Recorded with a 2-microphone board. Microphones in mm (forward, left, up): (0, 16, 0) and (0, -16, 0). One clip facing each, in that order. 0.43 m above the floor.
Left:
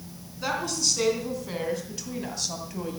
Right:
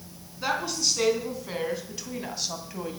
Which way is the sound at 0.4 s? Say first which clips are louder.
Even; 10° right (ahead or behind).